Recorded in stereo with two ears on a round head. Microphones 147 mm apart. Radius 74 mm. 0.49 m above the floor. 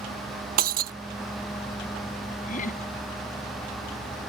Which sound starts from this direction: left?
Laughter, at 2.5 s.